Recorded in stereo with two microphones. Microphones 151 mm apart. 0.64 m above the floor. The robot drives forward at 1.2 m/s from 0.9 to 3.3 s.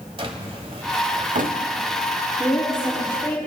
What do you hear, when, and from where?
0.2 s a drawer: 40° right (ahead or behind), 1.1 m; by 3.2 s 20° right (ahead or behind), 2 m
2.4 s a woman speaking: 20° left (ahead or behind), 4 m; by 3.4 s 25° left (ahead or behind), 3.5 m